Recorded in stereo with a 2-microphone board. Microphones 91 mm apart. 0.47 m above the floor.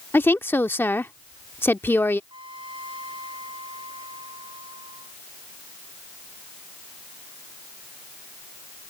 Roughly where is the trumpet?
Right.